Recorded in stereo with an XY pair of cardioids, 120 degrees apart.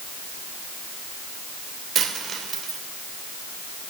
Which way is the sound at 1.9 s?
40° right.